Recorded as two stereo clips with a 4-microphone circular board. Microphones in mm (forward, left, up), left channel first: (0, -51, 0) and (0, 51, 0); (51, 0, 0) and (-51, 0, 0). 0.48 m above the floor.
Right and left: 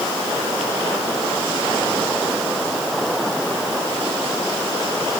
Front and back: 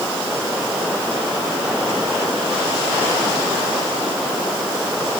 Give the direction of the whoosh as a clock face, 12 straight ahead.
No whoosh in this recording.